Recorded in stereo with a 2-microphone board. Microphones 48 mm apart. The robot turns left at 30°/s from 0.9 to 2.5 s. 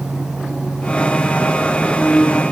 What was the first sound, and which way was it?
Only background noise.